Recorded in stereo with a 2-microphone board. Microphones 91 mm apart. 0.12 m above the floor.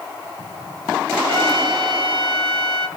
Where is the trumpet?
65° right (ahead or behind), 2.5 m.